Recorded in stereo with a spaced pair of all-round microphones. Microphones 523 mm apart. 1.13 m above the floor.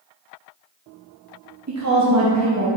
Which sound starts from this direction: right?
A woman speaking, at 1.7 s.